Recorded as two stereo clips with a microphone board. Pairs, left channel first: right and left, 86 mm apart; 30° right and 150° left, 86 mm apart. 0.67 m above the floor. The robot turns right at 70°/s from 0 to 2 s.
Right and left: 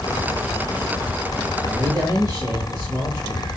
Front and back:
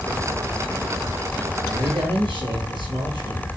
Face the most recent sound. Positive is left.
turn(degrees=130)